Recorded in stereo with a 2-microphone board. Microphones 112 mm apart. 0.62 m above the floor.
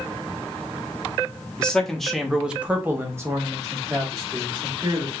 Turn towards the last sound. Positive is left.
turn(degrees=-25)  # may be behind; listen again after turning